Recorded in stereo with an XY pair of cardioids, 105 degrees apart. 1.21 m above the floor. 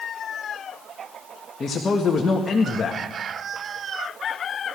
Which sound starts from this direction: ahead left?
A man speaking, at 1.6 s.